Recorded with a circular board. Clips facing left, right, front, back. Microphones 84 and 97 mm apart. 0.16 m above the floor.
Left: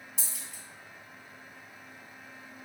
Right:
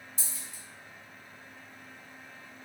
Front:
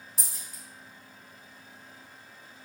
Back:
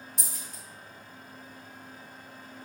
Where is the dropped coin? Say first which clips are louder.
Even, back 3 dB; 85° left, 1.5 m.